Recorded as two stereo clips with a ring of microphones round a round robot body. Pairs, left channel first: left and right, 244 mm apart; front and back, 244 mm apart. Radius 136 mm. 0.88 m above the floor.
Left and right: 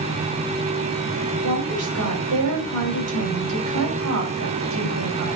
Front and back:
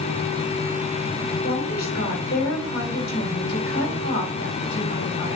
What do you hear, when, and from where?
1.4 s a woman speaking: 55° right, 3 m